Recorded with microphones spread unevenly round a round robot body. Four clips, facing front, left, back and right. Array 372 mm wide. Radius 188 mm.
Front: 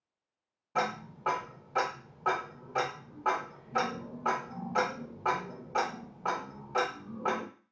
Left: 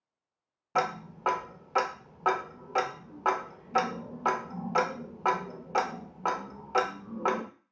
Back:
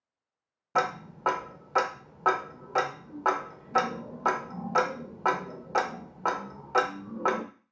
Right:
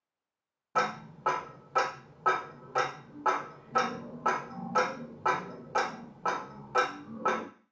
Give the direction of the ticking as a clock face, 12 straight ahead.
7 o'clock.